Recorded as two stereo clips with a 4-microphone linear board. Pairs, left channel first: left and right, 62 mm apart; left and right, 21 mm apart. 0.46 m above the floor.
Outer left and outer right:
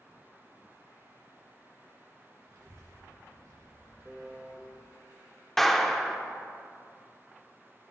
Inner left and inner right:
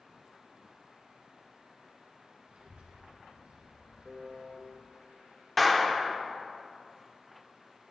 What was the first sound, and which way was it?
A child speaking, 80° right.